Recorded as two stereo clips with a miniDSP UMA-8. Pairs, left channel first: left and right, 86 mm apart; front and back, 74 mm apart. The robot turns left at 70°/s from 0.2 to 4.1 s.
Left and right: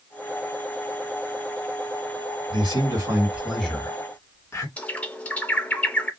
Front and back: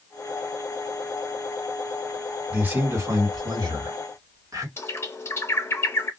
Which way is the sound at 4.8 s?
25° left.